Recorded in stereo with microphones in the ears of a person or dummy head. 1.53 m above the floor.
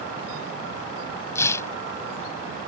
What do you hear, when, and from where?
1.4 s tearing paper: 20° left (ahead or behind)